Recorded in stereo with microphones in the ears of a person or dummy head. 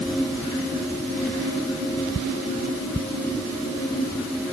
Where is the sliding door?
I don't hear a sliding door.